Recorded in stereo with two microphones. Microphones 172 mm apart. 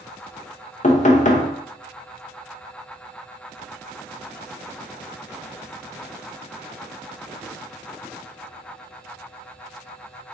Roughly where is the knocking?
Left.